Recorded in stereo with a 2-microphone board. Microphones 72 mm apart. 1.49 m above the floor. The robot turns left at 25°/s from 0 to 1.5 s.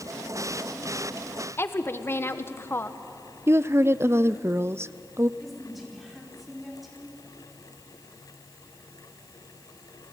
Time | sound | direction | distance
1.6 | a woman speaking | 35° left (ahead or behind) | 1.3 m
3.5 | a woman speaking | 35° right (ahead or behind) | 0.5 m
5.4 | a woman speaking | centre (ahead or behind) | 5 m